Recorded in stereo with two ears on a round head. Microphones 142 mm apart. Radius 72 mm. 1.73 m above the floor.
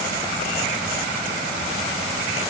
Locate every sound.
Only background noise.